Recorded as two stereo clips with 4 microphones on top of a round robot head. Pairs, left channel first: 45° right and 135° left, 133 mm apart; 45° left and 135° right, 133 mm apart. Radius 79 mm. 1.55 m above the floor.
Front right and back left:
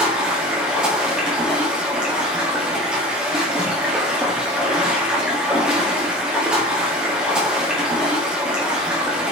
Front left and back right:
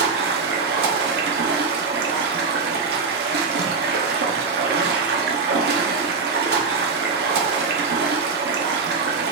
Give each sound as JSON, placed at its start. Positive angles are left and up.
{"t": 0.0, "sound": "running water", "azimuth_deg": -145, "distance_m": 1.5}